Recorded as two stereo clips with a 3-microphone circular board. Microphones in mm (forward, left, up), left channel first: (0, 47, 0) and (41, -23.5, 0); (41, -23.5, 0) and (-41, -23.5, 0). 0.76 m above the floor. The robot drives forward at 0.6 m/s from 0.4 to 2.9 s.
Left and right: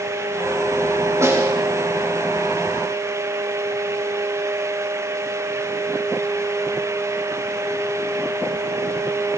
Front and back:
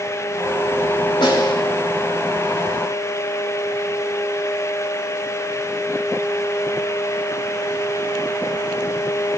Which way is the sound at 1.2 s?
5° right.